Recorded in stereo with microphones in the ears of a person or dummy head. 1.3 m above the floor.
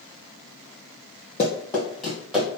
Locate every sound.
1.4 s running footsteps: 20° left (ahead or behind), 1.4 m; by 2.5 s 5° right (ahead or behind), 1.8 m